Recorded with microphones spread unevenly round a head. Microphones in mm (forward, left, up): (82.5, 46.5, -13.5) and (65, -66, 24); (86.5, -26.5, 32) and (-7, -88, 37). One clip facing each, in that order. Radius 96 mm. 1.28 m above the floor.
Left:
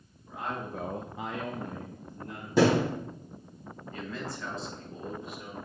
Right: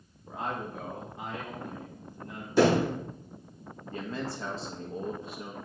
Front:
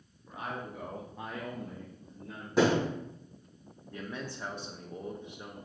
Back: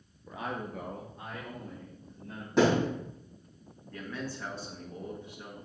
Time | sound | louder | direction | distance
0.3 | a man speaking | right 1 dB, back 2 dB | 165° right | 1.1 m
2.6 | a thud | even, back 1 dB | 125° left | 3.5 m
3.9 | a man speaking | right 3 dB, back 1 dB | 40° right | 1.1 m